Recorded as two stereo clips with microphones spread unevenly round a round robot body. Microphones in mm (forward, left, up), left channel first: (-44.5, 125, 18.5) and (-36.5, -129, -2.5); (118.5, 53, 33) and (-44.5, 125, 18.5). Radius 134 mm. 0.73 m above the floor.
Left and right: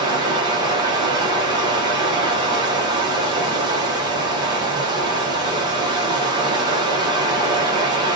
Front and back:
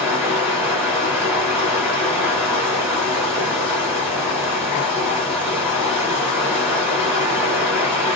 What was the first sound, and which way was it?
Running water, 145° right.